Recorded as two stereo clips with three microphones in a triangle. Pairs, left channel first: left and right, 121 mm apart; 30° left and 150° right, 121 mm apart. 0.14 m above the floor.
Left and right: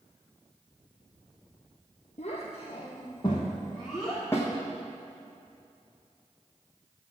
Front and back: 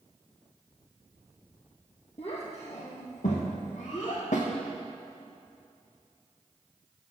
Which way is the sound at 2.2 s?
70° left.